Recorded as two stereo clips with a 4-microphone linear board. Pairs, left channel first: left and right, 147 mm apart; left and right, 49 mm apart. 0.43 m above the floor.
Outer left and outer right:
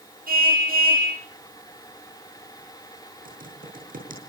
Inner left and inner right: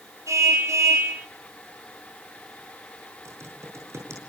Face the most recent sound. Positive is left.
turn(degrees=-75)  # may be behind; listen again after turning